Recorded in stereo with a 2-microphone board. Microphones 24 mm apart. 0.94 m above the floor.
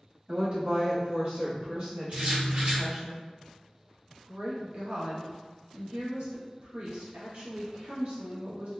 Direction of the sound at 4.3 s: 70° right (ahead or behind).